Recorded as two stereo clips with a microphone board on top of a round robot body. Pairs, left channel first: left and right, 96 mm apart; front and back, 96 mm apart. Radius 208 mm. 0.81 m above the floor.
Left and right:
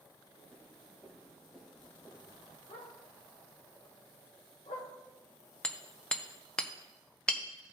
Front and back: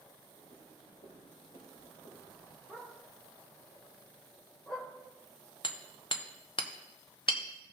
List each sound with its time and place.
0.3 s footsteps: 5° left, 4.5 m; by 2.6 s 5° right, 2 m
2.7 s a dog barking: 85° left, 1.8 m
5.6 s hammering: 10° left, 0.9 m